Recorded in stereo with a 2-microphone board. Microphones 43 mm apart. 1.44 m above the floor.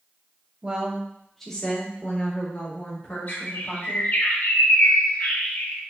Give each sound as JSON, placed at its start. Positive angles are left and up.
{"t": 0.6, "sound": "a woman speaking", "side_deg": -25, "distance_m": 0.8}
{"t": 3.3, "sound": "a bird", "side_deg": 55, "distance_m": 0.9}